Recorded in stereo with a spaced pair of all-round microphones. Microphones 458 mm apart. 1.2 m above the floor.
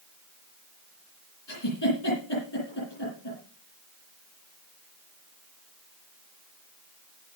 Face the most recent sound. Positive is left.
turn(degrees=65)  # may be behind; listen again after turning